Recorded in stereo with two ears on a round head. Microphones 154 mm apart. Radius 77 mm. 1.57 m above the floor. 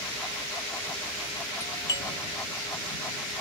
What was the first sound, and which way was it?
A doorbell, 20° left (ahead or behind).